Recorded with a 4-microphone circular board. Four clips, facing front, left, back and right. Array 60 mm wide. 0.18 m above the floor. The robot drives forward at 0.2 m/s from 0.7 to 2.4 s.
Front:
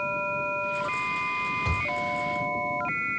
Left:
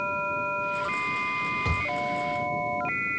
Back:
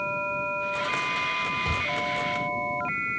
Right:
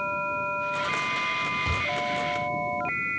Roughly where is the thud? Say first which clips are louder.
Even, back 1 dB; left.